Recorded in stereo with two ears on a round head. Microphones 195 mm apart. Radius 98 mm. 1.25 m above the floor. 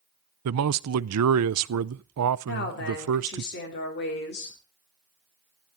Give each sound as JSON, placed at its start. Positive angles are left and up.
{"t": 0.5, "sound": "a man speaking", "side_deg": -75, "distance_m": 0.5}
{"t": 2.5, "sound": "a woman speaking", "side_deg": 45, "distance_m": 3.5}